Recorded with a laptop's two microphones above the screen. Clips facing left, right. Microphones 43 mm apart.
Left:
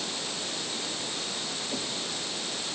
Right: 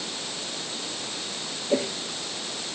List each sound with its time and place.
1.7 s a whoosh: 75° right (ahead or behind)